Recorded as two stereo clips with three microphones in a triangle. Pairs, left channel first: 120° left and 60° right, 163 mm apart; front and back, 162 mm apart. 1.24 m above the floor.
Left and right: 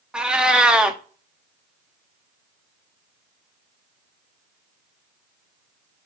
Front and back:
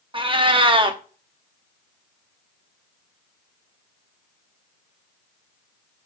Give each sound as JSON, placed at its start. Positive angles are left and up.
{"t": 0.1, "sound": "a cat meowing", "azimuth_deg": -140, "distance_m": 0.8}